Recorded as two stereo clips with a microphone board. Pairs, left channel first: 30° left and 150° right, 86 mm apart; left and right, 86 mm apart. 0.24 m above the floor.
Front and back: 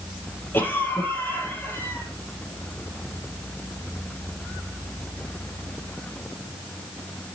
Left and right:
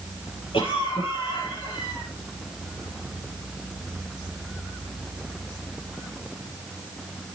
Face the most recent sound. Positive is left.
turn(degrees=95)